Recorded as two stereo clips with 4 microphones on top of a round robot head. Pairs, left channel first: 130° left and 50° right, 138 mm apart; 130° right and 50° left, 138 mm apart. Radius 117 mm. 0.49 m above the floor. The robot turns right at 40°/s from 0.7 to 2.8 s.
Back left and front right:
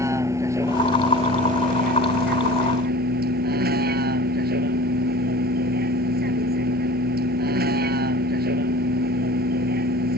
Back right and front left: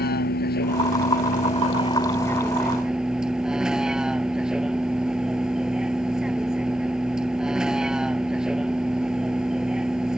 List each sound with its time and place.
0.0 s a vehicle: 120° right; by 10.2 s 35° right